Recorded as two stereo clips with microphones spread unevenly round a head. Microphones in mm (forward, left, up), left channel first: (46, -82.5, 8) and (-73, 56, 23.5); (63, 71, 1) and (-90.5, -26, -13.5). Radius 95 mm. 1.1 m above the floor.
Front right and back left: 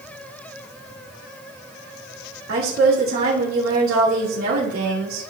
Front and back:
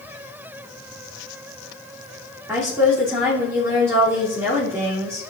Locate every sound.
2.5 s a woman speaking: 135° left, 2.5 m